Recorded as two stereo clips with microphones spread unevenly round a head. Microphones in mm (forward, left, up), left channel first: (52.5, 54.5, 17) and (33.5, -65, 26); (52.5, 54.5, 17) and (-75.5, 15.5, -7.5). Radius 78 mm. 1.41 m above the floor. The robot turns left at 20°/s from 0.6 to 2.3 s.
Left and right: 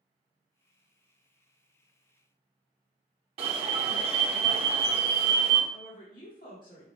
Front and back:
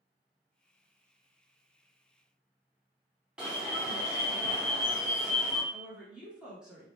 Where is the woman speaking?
115° left, 1.2 m.